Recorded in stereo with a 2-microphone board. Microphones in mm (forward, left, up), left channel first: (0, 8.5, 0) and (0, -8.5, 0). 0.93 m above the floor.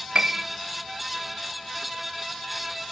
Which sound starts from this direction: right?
A piano, at 0.1 s.